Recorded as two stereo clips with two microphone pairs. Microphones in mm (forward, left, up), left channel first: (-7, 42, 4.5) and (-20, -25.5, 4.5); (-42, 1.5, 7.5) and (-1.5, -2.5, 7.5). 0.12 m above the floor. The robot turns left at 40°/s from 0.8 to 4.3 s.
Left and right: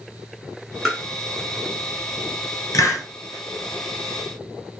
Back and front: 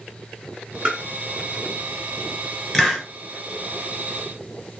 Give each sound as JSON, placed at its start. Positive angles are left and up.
{"t": 0.8, "sound": "tapping", "azimuth_deg": -5, "distance_m": 1.7}
{"t": 2.7, "sound": "a hiss", "azimuth_deg": 95, "distance_m": 1.4}